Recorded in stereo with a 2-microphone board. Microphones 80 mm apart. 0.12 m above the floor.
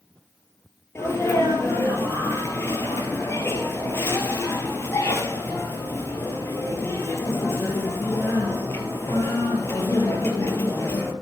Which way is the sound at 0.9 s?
35° left (ahead or behind).